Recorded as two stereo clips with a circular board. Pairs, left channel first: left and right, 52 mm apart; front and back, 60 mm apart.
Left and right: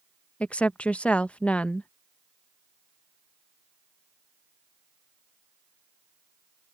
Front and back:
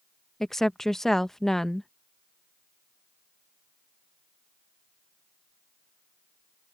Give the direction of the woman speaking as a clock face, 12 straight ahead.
10 o'clock.